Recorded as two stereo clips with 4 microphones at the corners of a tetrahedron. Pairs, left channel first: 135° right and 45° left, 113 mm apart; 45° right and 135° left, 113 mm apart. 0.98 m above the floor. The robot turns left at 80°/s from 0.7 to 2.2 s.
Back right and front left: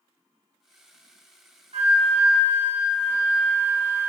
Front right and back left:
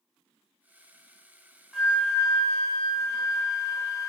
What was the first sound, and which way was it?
A flute, 45° left.